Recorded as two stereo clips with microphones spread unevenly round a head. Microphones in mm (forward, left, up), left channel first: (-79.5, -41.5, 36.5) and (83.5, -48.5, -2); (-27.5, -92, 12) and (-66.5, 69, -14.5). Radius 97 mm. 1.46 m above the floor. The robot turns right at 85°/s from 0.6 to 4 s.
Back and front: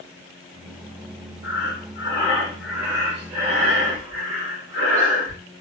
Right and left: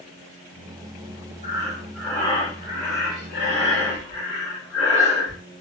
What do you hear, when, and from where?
1.4 s breathing: 150° left, 1.3 m; by 5.4 s 10° left, 1.3 m